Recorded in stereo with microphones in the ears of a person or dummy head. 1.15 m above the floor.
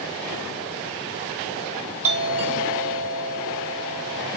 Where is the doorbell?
35° right (ahead or behind), 2.5 m.